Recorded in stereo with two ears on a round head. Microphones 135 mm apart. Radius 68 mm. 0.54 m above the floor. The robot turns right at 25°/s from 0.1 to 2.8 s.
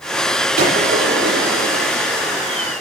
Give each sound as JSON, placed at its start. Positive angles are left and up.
{"t": 0.6, "sound": "a gunshot", "azimuth_deg": -110, "distance_m": 7.5}